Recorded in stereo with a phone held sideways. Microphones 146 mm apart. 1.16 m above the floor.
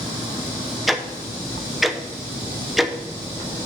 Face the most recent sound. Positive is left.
turn(degrees=0)  # may be behind; listen again after turning